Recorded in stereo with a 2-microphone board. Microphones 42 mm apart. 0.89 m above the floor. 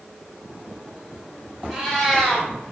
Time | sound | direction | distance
1.7 | a cat meowing | 10° left (ahead or behind) | 0.8 m